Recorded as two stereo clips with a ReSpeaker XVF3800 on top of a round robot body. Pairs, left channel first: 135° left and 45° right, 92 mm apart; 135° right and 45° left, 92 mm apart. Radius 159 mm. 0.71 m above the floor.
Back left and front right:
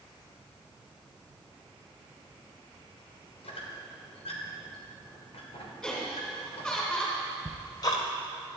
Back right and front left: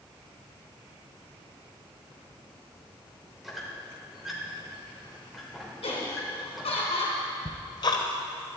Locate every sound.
3.4 s a squeak: 135° left, 2.5 m
5.8 s laughter: 145° right, 3 m
7.5 s ticking: 175° right, 0.6 m